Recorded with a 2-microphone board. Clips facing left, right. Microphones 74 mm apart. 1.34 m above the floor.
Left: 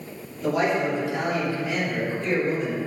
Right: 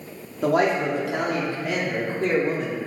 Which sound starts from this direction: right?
A man speaking, at 0.4 s.